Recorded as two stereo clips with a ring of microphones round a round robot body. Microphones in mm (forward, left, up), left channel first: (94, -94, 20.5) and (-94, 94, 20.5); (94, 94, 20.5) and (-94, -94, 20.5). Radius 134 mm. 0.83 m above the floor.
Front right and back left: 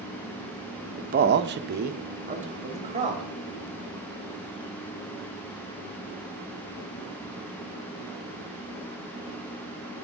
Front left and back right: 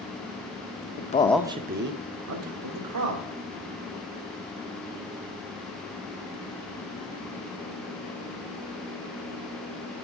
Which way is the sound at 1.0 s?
80° left.